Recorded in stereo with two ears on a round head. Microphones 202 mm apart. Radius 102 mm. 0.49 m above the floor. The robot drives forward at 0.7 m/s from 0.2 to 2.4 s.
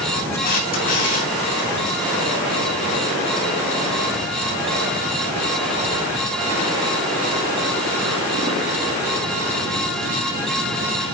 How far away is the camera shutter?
About 5 m.